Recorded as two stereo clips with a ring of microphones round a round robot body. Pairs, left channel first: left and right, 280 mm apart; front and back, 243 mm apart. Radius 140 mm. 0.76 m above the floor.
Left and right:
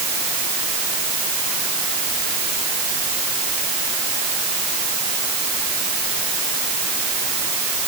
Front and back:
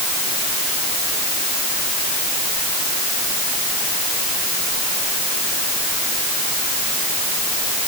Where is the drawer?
No drawer in this recording.